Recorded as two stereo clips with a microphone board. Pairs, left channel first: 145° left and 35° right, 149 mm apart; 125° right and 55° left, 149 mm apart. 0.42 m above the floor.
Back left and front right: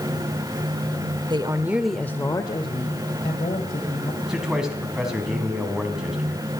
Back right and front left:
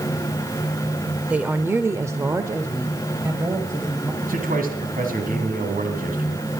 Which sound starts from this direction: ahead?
A woman speaking, at 1.3 s.